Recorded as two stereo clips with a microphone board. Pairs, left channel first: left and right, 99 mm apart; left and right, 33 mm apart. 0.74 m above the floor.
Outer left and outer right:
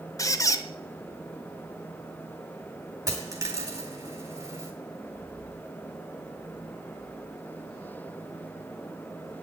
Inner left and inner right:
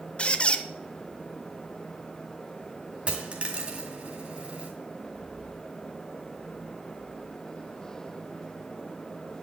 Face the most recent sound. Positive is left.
turn(degrees=-35)  # may be behind; listen again after turning